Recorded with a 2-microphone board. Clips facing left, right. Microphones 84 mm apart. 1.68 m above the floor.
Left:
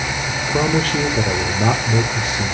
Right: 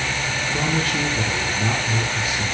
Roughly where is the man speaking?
Left.